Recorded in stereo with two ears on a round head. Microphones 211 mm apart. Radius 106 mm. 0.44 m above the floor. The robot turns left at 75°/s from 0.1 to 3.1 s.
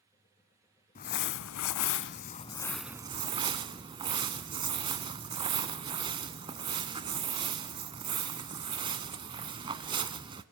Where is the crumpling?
140° left, 0.7 m; by 10.4 s 20° right, 0.7 m.